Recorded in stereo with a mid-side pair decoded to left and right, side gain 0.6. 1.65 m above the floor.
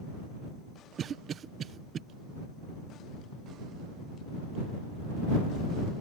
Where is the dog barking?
No dog barking in this recording.